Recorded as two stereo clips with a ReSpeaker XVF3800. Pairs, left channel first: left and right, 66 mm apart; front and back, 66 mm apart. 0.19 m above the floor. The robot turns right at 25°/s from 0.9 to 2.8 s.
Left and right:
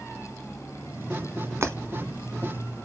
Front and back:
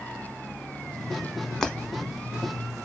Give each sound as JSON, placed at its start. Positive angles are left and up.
{"t": 1.6, "sound": "breaking glass", "azimuth_deg": -80, "distance_m": 1.1}